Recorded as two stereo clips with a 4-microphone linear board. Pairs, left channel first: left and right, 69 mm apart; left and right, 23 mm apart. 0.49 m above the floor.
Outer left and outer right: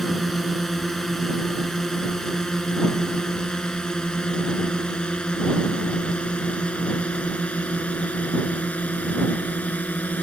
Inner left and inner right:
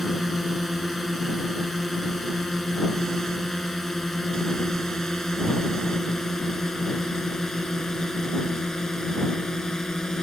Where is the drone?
Centre (ahead or behind); by 10.2 s 20° left (ahead or behind).